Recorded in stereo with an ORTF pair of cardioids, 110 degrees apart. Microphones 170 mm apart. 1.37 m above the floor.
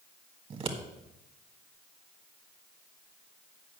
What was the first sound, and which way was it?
Scissors, 35° right.